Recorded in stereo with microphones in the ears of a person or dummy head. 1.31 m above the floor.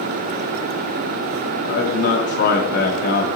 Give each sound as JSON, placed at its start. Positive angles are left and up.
{"t": 1.6, "sound": "a man speaking", "side_deg": 55, "distance_m": 2.0}